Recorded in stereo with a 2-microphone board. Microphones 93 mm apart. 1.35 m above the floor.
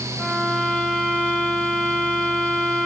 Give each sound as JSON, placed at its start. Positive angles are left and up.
{"t": 0.2, "sound": "a violin", "side_deg": 0, "distance_m": 4.0}